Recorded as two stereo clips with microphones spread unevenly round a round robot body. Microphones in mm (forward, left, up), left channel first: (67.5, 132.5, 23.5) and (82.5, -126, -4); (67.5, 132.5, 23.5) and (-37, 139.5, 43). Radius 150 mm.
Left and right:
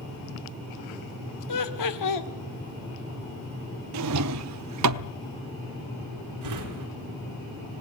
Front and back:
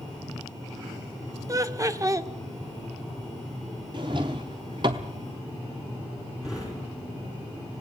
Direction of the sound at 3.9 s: 120° right.